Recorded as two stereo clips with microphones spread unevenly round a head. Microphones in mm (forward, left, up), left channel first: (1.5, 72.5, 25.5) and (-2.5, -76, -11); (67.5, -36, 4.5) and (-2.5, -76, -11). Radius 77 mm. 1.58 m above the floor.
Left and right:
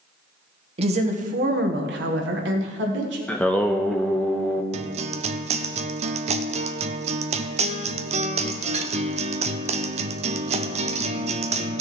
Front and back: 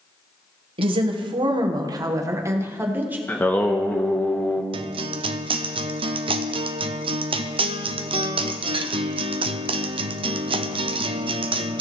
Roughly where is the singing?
Ahead left.